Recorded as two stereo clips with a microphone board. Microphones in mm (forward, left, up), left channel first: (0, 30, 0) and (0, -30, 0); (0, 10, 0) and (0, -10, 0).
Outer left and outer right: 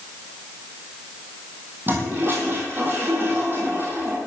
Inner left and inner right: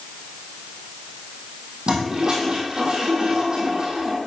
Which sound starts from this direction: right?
A toilet flushing, at 1.9 s.